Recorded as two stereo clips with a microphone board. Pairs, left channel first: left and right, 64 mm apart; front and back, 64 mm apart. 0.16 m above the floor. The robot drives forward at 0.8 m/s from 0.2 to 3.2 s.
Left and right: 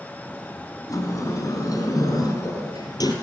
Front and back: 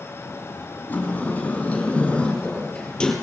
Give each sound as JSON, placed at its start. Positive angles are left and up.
{"t": 0.9, "sound": "a sliding door", "azimuth_deg": 60, "distance_m": 6.0}